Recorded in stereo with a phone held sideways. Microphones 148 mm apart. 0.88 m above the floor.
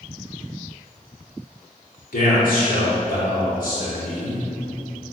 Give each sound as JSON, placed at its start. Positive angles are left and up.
{"t": 2.1, "sound": "a man speaking", "side_deg": 75, "distance_m": 2.5}